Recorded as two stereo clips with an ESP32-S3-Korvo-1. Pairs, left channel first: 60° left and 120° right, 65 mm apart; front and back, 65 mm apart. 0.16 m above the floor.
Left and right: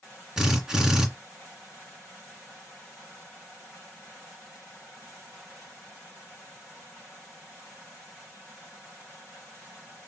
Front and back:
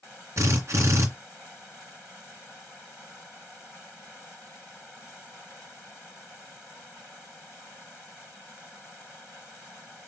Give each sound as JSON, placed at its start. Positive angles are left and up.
{"t": 0.4, "sound": "a drill", "azimuth_deg": 160, "distance_m": 2.5}